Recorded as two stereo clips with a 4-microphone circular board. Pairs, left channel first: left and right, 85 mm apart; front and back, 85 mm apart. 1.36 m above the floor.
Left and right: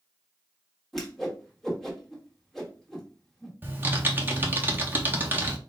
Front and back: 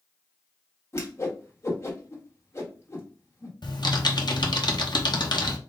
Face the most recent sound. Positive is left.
turn(degrees=-25)